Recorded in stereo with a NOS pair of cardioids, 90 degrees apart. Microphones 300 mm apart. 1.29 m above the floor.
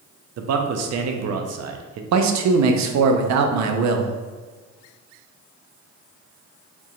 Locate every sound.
0.4 s a man speaking: 60° right, 0.6 m
2.1 s a man speaking: 65° right, 0.6 m